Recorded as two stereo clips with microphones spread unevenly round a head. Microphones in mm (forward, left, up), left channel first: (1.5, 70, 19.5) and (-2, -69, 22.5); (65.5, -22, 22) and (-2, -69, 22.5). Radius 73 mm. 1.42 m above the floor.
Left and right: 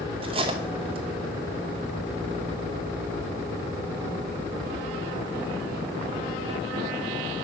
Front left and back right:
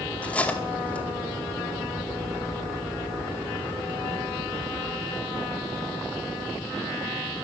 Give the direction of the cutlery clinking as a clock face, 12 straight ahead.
1 o'clock.